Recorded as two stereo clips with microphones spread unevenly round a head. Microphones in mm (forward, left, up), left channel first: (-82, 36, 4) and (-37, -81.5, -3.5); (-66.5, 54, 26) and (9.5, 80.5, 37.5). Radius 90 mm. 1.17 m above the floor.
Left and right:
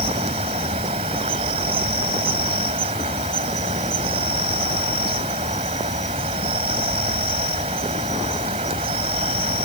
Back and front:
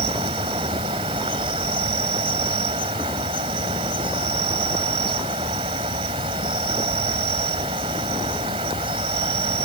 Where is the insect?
10° right.